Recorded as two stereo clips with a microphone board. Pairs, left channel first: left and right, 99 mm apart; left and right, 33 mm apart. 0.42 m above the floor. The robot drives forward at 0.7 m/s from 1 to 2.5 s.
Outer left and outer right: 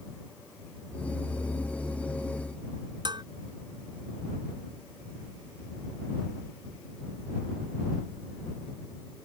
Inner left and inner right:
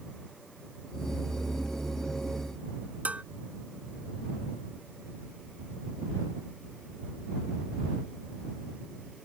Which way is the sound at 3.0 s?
45° right (ahead or behind).